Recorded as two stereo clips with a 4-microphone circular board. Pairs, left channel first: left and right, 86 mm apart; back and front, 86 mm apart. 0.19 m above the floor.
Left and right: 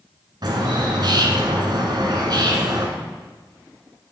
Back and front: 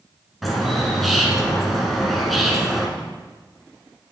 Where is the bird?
90° right, 1.3 m.